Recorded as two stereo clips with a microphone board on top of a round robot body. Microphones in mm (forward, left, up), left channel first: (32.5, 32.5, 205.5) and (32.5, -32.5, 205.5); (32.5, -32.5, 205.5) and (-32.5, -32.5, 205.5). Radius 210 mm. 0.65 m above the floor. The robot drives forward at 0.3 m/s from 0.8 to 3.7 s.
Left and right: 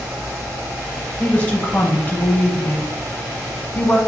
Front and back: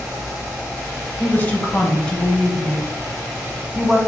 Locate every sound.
1.2 s a woman speaking: 35° left, 1.3 m; by 4.0 s 120° left, 1.2 m